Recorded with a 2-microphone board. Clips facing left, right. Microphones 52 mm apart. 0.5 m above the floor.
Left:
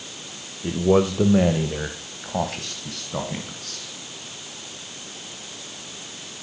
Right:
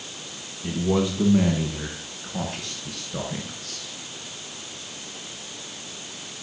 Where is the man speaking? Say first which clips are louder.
Left 5 dB; 40° left (ahead or behind), 1.6 m; by 3.9 s 75° left (ahead or behind), 4 m.